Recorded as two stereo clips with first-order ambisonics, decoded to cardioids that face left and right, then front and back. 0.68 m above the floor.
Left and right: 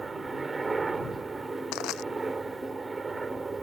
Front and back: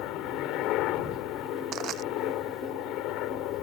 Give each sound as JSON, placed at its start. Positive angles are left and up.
{"t": 0.0, "sound": "a helicopter", "azimuth_deg": -15}
{"t": 1.7, "sound": "crushing", "azimuth_deg": 125}